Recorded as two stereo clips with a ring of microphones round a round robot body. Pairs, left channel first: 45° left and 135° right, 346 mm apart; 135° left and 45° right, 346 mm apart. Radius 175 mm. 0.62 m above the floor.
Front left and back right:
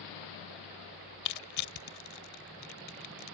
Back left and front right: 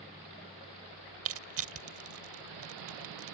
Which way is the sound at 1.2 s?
5° left.